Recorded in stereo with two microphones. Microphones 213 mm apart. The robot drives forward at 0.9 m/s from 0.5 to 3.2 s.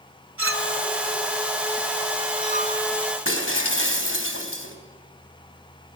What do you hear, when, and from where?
0.4 s a clink: 80° right, 1.9 m; by 2.8 s 40° right (ahead or behind), 3 m
3.2 s breaking glass: 80° left, 3.5 m